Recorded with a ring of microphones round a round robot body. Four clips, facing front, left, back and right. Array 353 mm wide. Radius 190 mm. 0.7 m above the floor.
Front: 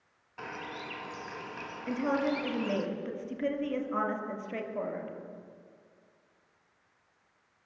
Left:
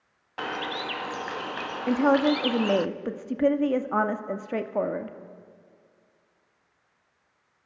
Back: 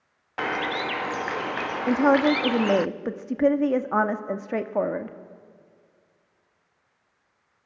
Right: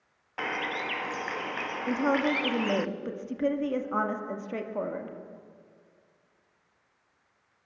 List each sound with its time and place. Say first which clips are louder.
0.4 s a bird: left 1 dB, back 14 dB; 170° left, 0.6 m
1.9 s a woman speaking: left 6 dB, back 10 dB; 155° left, 1.7 m